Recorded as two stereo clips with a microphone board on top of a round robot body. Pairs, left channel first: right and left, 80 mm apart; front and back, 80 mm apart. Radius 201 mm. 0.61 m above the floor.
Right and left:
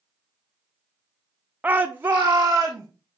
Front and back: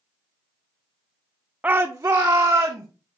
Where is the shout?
130° left, 0.5 m; by 2.9 s 150° left, 1.2 m.